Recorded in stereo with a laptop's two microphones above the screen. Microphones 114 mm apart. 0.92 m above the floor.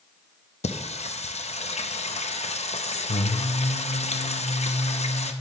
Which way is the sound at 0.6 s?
70° left (ahead or behind).